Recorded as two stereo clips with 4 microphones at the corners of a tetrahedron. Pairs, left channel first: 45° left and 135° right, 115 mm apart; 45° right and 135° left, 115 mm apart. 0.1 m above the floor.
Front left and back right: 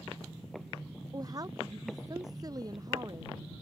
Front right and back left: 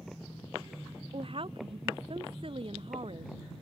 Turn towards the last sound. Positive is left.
turn(degrees=170)